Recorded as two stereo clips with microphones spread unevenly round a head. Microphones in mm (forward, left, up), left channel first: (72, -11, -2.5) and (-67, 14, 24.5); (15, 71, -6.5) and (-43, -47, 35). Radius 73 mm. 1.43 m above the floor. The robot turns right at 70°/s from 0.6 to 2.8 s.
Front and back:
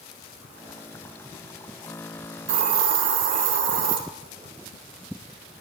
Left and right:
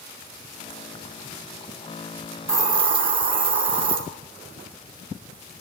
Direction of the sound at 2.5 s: 170° left.